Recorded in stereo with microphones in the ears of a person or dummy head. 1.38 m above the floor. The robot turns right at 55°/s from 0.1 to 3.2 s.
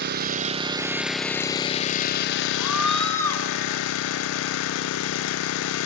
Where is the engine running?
60° right, 0.7 m; by 5.9 s 110° left, 0.7 m.